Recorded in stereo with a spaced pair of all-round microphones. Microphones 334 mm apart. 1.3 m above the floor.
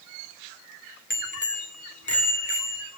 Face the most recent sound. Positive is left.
turn(degrees=65)  # may be behind; listen again after turning